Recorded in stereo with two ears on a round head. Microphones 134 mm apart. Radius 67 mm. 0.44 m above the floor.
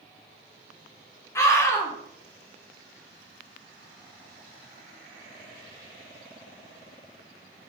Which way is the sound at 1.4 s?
20° left (ahead or behind).